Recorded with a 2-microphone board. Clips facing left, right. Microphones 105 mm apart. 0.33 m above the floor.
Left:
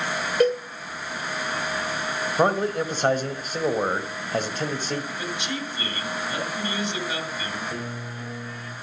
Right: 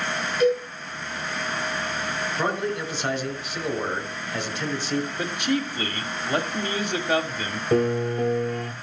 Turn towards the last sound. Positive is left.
turn(degrees=-60)  # may be behind; listen again after turning